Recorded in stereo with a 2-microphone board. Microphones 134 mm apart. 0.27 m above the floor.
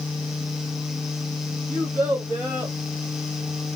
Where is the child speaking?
15° right (ahead or behind), 1.3 m; by 2.8 s 40° right (ahead or behind), 1.0 m.